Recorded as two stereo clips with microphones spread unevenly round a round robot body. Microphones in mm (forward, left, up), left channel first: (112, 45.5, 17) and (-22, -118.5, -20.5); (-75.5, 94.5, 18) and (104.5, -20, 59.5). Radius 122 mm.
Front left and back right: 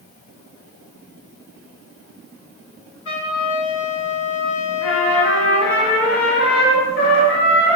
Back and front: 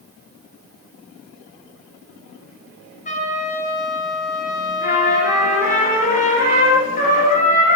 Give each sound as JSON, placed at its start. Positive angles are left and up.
{"t": 3.0, "sound": "a trumpet", "azimuth_deg": 90, "distance_m": 2.0}
{"t": 4.8, "sound": "a trumpet", "azimuth_deg": 90, "distance_m": 1.9}